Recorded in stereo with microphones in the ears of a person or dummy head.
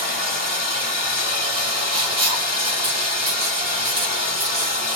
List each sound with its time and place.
0.0 s running water: 30° right (ahead or behind), 1.2 m
1.9 s writing: 70° right (ahead or behind), 1.4 m